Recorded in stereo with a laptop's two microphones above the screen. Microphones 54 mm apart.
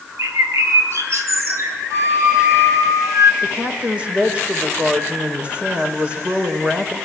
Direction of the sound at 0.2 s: 60° right (ahead or behind).